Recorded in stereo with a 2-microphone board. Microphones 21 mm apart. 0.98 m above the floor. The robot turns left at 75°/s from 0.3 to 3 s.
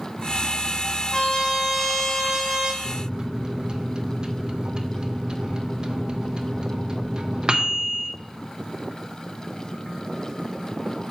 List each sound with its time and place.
1.1 s a trumpet: 55° left, 1.2 m; by 2.7 s 65° right, 1.2 m
2.8 s a microwave: 25° right (ahead or behind), 0.5 m; by 8.1 s 35° right (ahead or behind), 0.5 m